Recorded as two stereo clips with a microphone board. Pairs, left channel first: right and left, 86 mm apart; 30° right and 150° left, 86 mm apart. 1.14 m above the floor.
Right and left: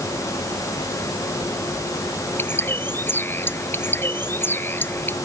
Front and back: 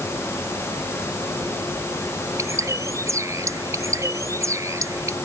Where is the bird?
155° right.